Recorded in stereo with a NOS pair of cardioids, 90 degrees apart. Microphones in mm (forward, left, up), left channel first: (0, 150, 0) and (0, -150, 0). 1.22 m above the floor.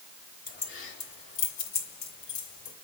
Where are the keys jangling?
35° left, 3.5 m; by 2.7 s 80° left, 4 m.